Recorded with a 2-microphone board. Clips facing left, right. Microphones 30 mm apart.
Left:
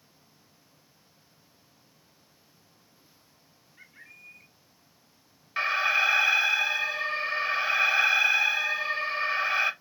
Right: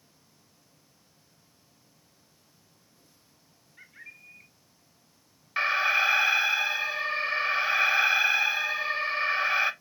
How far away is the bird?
About 1.2 m.